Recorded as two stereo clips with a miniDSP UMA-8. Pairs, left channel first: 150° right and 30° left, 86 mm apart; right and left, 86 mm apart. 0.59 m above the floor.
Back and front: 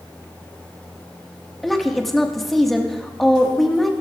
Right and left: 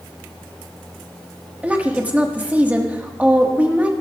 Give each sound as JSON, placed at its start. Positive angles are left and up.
{"t": 1.6, "sound": "a woman speaking", "azimuth_deg": 130, "distance_m": 1.1}